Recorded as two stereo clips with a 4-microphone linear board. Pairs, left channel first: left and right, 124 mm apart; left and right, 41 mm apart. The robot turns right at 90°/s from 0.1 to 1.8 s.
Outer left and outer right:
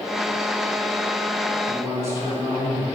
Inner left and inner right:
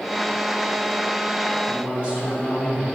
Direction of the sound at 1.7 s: 25° right (ahead or behind).